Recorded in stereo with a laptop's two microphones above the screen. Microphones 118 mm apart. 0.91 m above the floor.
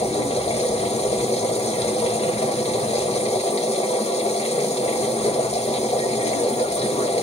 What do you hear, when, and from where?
0.0 s a machine running: 60° left (ahead or behind), 1.1 m